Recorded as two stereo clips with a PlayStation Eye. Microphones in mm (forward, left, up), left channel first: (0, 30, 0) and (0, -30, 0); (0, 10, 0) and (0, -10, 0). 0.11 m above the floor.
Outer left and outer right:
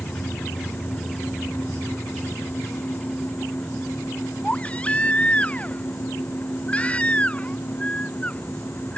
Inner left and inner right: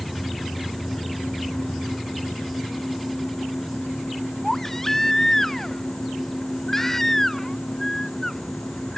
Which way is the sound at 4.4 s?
20° left (ahead or behind).